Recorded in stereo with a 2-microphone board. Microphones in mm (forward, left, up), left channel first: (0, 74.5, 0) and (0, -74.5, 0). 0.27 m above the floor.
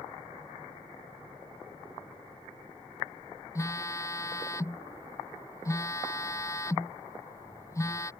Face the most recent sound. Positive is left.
turn(degrees=20)  # may be behind; listen again after turning